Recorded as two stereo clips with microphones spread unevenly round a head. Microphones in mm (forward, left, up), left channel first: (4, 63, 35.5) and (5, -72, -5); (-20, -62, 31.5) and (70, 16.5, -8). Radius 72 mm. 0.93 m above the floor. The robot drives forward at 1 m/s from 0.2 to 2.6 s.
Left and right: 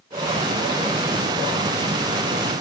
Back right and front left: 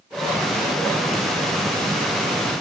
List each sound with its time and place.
Only background noise.